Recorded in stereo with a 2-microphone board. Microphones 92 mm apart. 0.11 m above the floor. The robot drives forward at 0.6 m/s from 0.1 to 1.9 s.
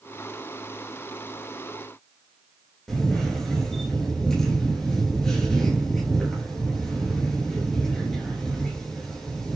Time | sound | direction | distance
2.9 | a camera shutter | 5° left (ahead or behind) | 8 m